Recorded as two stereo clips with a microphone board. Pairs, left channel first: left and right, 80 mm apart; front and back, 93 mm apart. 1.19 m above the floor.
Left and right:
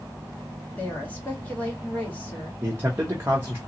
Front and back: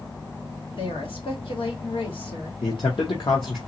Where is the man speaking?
30° right, 0.9 m.